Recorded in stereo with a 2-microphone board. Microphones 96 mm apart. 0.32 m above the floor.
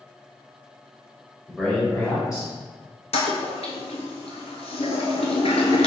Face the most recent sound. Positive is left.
turn(degrees=80)